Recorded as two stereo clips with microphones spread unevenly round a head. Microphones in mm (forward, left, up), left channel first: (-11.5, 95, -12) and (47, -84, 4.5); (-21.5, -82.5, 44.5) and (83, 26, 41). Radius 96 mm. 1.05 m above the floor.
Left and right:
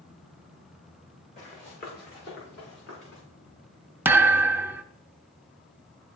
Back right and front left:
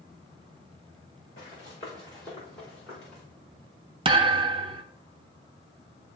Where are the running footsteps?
165° left, 3 m; by 3.2 s 140° left, 5 m.